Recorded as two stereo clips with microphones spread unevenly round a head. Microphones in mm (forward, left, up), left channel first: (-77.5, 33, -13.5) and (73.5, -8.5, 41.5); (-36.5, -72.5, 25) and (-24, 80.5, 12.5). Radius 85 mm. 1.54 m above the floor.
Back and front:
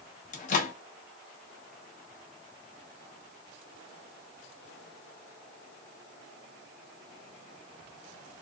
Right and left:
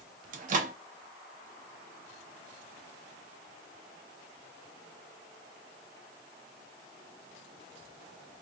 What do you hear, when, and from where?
0.3 s a microwave: 110° left, 0.5 m